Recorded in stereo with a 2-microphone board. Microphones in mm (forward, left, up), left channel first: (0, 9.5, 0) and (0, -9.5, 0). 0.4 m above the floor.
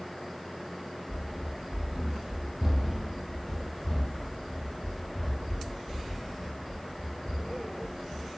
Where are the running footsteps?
70° right (ahead or behind), 0.8 m; by 8.3 s 25° left (ahead or behind), 3.5 m.